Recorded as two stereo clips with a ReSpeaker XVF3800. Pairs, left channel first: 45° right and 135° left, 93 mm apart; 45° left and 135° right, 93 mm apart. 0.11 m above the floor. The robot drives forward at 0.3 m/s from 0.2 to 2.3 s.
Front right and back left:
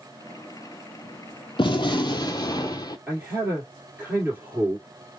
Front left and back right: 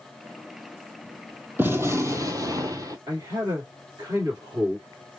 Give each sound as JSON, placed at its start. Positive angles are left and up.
{"t": 1.6, "sound": "a gunshot", "azimuth_deg": -70, "distance_m": 0.7}
{"t": 3.1, "sound": "a man speaking", "azimuth_deg": -165, "distance_m": 1.7}